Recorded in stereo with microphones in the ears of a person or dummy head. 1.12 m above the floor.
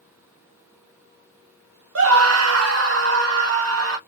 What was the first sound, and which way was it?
A scream, 75° right (ahead or behind).